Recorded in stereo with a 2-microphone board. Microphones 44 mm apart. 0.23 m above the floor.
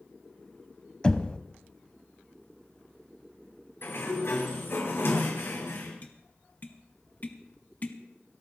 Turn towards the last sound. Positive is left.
turn(degrees=40)  # may be behind; listen again after turning